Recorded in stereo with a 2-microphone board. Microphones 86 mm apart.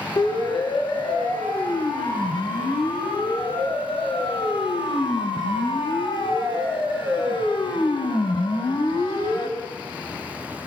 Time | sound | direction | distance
0.2 | a siren | 70° left (ahead or behind) | 8.5 m